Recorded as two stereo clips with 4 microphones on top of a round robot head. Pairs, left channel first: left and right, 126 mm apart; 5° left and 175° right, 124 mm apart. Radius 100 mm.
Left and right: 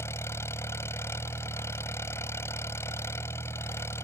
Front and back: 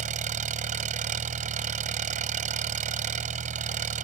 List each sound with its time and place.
0.0 s an engine running: 165° left